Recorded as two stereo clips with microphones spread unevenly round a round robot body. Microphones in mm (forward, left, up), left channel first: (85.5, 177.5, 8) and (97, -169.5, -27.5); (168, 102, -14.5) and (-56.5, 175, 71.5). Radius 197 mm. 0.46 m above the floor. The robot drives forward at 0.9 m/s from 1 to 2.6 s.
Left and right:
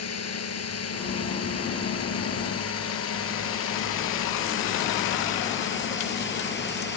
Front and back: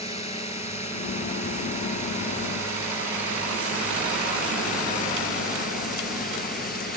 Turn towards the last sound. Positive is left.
turn(degrees=30)